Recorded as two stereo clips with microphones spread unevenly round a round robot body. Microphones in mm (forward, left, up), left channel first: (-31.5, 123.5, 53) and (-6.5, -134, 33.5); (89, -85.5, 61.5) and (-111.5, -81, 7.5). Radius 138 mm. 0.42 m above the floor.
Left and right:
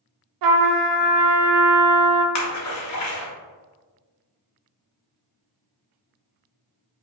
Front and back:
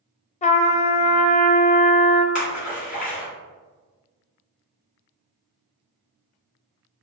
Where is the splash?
65° left, 0.9 m.